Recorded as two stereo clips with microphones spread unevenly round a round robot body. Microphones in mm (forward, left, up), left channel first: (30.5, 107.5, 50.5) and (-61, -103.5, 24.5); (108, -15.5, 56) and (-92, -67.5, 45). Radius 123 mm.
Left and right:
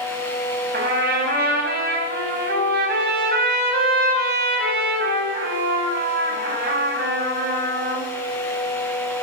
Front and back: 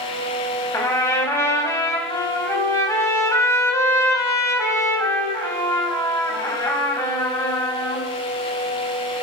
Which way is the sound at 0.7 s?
60° right.